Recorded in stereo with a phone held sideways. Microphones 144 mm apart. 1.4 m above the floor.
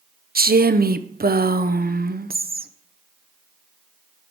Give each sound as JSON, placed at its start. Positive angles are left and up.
{"t": 0.3, "sound": "a woman speaking", "side_deg": -85, "distance_m": 0.6}